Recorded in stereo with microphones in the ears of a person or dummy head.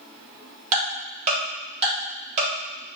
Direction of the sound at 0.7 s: 35° right (ahead or behind).